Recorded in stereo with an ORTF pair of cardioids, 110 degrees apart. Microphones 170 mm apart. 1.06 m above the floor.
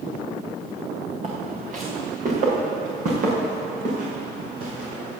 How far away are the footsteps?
About 4.5 m.